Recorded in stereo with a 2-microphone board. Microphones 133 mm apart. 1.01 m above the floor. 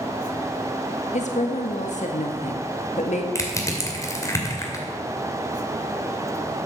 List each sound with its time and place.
1.1 s a woman speaking: 65° left (ahead or behind), 1.7 m
3.4 s crushing: 25° left (ahead or behind), 2.5 m